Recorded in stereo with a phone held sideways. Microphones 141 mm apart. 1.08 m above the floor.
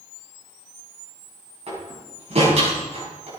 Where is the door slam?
50° right (ahead or behind), 6.5 m.